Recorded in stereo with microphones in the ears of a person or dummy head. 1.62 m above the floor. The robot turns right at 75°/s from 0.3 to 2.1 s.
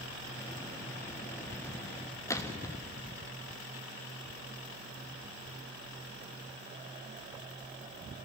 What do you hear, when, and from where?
2.3 s a gunshot: 15° left (ahead or behind), 1.1 m